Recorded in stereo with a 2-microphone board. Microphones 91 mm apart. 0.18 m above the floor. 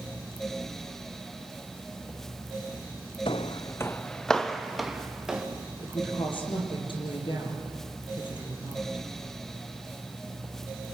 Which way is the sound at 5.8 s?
65° left (ahead or behind).